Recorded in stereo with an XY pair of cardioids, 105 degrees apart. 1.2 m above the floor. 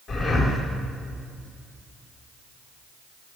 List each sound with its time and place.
0.1 s breathing: 55° left, 5 m